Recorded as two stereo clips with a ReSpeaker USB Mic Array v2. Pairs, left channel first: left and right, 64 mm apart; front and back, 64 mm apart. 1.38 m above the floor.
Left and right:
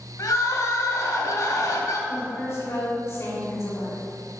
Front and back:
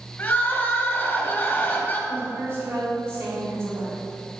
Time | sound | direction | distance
0.2 | crying | 60° left | 2 m
2.1 | a woman speaking | 135° left | 4 m